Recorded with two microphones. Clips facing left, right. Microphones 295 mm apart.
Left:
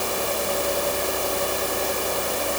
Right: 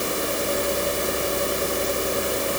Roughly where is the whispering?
No whispering in this recording.